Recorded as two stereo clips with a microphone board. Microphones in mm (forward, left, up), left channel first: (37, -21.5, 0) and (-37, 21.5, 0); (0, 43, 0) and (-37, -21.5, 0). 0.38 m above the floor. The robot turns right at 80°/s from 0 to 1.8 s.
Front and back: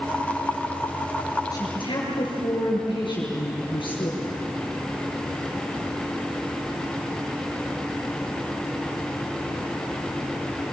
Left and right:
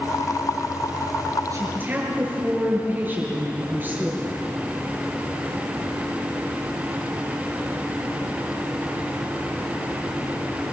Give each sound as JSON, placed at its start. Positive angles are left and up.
{"t": 1.5, "sound": "a woman speaking", "azimuth_deg": -75, "distance_m": 7.5}